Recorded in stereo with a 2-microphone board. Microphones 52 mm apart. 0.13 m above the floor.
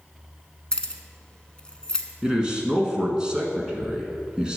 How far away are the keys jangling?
About 0.7 m.